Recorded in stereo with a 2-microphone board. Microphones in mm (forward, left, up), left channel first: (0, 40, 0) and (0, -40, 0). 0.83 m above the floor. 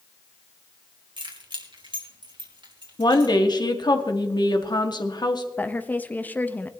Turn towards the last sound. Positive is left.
turn(degrees=20)  # may be behind; listen again after turning